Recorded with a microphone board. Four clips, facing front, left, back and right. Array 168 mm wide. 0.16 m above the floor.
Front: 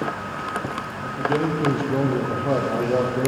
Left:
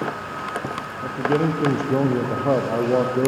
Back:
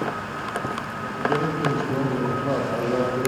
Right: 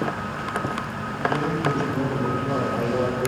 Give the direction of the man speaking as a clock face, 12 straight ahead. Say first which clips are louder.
Left 5 dB, front 1 dB; 9 o'clock.